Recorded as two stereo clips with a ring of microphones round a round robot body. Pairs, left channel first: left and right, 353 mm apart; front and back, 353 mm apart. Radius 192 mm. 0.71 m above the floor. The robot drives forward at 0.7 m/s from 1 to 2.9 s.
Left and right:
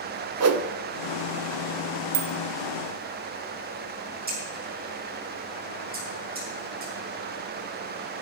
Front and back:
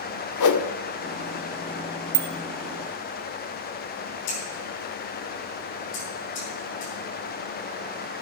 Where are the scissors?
25° right, 8.5 m.